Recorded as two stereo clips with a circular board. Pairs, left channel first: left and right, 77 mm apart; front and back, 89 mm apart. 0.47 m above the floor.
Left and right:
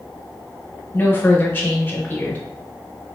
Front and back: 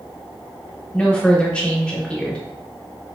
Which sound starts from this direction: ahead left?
A woman speaking, at 0.9 s.